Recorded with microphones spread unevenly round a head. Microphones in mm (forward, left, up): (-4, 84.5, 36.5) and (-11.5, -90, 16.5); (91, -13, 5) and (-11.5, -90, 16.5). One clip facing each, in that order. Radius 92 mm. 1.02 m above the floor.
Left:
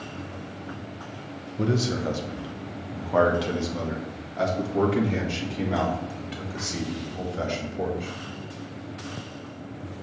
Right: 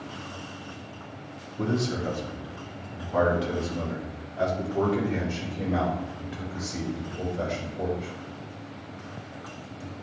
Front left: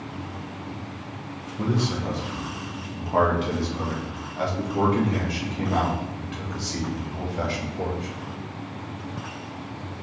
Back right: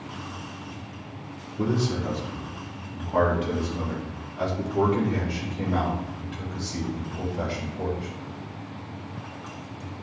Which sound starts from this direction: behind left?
A man speaking, at 1.6 s.